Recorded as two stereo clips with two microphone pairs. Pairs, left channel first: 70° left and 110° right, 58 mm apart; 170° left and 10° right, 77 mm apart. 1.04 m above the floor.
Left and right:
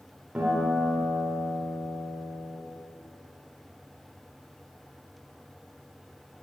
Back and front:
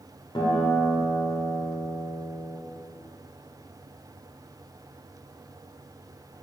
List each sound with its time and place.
0.3 s a guitar: straight behind, 2 m